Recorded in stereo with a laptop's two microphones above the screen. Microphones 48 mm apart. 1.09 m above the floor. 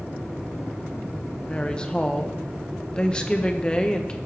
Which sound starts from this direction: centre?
A woman speaking, at 1.5 s.